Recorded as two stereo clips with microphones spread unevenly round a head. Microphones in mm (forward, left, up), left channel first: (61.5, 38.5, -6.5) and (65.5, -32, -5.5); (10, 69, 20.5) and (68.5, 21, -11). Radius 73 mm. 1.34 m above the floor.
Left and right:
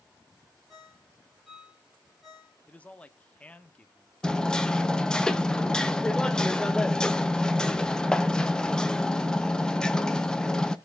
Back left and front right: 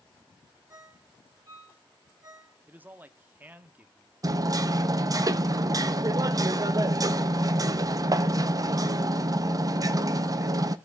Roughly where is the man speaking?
Ahead.